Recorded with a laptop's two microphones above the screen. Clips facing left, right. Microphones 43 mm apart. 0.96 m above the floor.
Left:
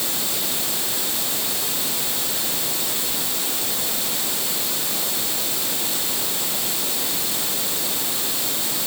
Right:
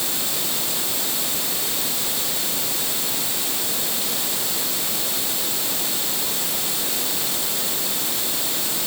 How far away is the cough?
No cough in this recording.